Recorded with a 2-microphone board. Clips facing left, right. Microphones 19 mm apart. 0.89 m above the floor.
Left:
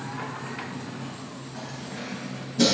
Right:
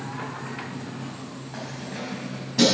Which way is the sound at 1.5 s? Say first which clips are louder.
Right 3 dB; 65° right (ahead or behind).